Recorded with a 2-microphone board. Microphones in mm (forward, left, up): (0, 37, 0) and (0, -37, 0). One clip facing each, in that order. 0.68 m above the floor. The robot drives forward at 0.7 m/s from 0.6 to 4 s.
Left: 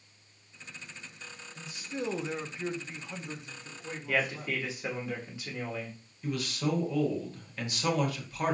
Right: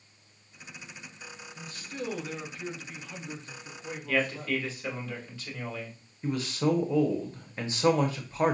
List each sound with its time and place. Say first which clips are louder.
1.6 s a man speaking: left 2 dB; 15° left (ahead or behind), 0.8 m; by 4.6 s 10° left (ahead or behind), 1.2 m
4.1 s a man speaking: right 2 dB; 20° left (ahead or behind), 1.1 m
6.2 s a man speaking: right 4 dB; 30° right (ahead or behind), 0.7 m